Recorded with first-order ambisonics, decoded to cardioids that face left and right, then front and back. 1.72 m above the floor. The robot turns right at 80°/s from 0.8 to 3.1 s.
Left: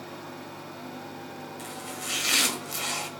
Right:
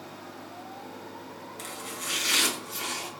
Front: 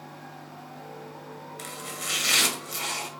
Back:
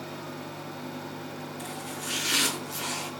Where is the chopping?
30° right, 1.9 m; by 3.1 s 90° left, 1.9 m.